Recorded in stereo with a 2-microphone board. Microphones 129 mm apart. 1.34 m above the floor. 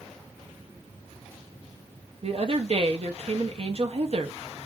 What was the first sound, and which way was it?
A woman speaking, 50° right (ahead or behind).